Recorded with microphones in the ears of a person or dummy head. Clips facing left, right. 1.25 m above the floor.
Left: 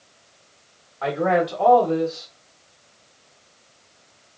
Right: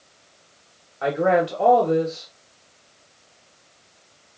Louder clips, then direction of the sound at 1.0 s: Right 1 dB; 10° right (ahead or behind).